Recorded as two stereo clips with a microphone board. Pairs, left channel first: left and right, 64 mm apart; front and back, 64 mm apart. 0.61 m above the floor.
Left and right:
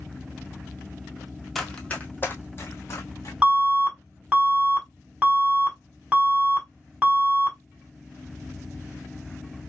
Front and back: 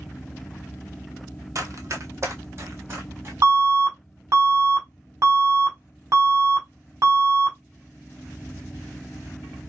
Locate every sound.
1.6 s running footsteps: 175° left, 0.9 m; by 3.3 s 130° left, 2.5 m
3.4 s an alarm: 160° right, 1.6 m